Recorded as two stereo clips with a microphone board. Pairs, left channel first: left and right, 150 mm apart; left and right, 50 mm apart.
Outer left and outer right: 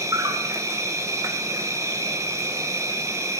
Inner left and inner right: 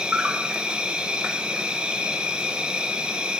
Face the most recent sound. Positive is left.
turn(degrees=-20)  # may be behind; listen again after turning